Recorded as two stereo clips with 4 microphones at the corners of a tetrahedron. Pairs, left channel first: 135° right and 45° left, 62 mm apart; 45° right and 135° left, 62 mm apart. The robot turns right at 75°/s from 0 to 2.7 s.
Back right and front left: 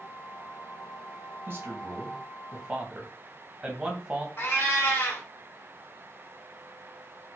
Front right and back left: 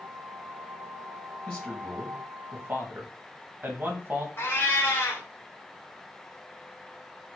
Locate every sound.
1.5 s a man speaking: 20° left, 1.0 m; by 4.3 s 115° left, 1.0 m
4.4 s a cat meowing: 85° right, 1.4 m